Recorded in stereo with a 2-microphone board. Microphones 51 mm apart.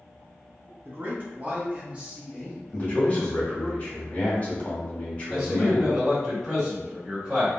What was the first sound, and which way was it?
A man speaking, 45° right (ahead or behind).